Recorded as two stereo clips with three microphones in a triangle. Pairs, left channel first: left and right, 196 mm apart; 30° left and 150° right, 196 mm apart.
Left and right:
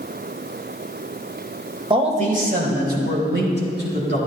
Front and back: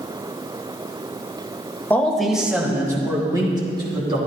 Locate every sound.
1.9 s a man speaking: 45° right, 1.3 m; by 4.2 s 90° right, 3.5 m